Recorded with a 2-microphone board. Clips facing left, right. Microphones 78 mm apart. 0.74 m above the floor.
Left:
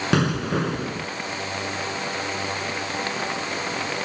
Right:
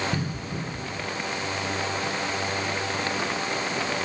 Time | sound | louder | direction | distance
0.1 | an explosion | left 9 dB | 80° left | ?